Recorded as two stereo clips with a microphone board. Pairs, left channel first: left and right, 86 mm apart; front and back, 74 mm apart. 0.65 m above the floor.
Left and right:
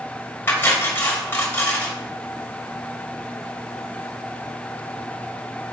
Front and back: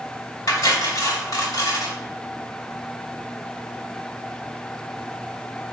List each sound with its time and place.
0.5 s cutlery clinking: 25° left, 2 m